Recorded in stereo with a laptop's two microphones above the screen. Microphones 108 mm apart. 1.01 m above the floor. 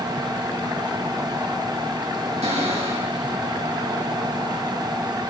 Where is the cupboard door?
85° right, 6.5 m.